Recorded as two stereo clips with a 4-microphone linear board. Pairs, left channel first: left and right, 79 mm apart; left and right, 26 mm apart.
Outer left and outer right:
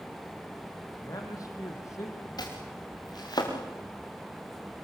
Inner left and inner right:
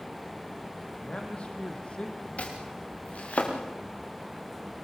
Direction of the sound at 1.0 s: 55° left (ahead or behind).